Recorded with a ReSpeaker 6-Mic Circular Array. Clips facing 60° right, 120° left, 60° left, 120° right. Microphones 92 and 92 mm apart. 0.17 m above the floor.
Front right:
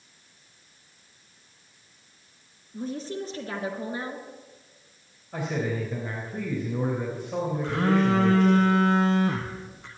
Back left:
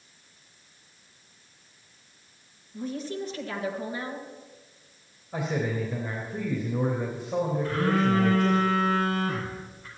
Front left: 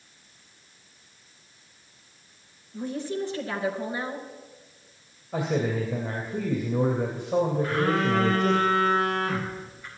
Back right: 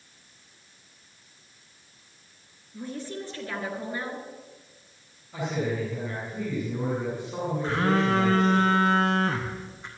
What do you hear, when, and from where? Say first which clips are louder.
2.7 s a woman speaking: even, front left 5 dB; 10° right, 2.5 m
5.3 s a man speaking: even, front left 3 dB; 30° left, 3.5 m
7.6 s a phone buzzing: front right 4 dB, even; 55° right, 2.5 m